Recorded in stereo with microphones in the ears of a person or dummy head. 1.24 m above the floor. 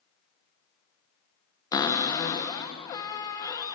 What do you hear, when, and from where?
1.7 s a cupboard door: 20° left (ahead or behind), 0.7 m